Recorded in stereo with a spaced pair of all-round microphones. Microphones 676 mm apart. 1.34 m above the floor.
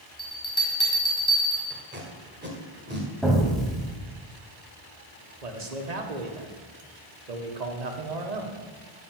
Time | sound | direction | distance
0.2 | a bell | 20° left (ahead or behind) | 3.5 m
1.7 | tape being pulled | 15° right (ahead or behind) | 1.9 m
3.2 | an explosion | centre (ahead or behind) | 1.7 m
5.4 | a man speaking | 70° right (ahead or behind) | 1.4 m